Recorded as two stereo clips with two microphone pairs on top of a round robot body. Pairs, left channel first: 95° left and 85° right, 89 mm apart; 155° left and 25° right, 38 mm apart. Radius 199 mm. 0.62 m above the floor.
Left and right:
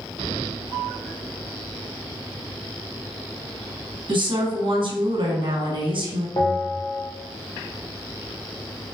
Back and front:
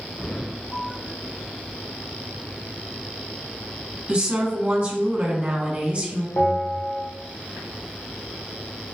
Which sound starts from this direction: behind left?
A bell, at 6.4 s.